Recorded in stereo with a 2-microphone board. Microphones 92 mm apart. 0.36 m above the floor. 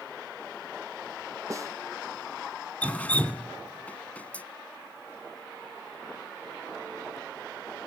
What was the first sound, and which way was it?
A snare drum, 35° right (ahead or behind).